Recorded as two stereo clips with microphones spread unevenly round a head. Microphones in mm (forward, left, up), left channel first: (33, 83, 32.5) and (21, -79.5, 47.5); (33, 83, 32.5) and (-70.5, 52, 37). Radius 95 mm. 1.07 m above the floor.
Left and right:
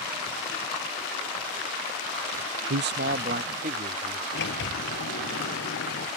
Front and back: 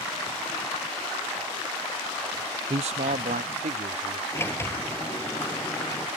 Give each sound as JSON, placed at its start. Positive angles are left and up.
{"t": 2.7, "sound": "a man speaking", "azimuth_deg": -115}
{"t": 4.3, "sound": "a sliding door", "azimuth_deg": 85}